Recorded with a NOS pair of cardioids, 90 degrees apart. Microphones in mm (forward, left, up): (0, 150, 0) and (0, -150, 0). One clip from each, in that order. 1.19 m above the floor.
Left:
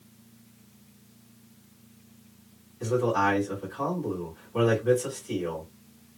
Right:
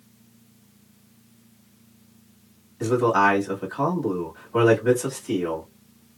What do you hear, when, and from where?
2.8 s a man speaking: 70° right, 1.6 m